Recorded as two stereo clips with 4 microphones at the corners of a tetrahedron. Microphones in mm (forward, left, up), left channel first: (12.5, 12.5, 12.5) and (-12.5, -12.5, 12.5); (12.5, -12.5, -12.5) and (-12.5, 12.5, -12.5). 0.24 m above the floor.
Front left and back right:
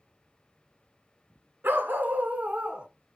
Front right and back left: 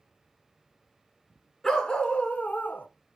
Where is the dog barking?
125° right, 0.8 m; by 2.9 s 65° right, 0.7 m.